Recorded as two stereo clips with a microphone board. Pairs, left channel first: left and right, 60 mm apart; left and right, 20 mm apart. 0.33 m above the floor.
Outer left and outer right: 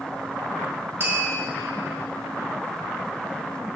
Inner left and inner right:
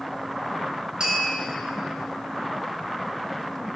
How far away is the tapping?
About 1.8 m.